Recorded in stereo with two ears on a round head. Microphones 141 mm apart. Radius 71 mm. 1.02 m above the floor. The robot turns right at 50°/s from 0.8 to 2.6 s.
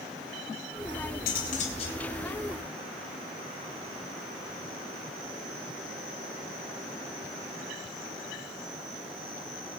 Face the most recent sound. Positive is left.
turn(degrees=180)